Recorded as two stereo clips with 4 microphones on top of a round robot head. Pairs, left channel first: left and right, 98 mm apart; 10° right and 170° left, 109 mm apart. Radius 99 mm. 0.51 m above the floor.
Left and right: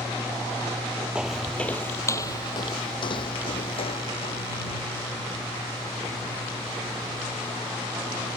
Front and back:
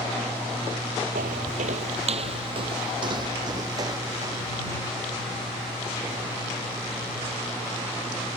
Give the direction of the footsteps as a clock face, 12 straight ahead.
6 o'clock.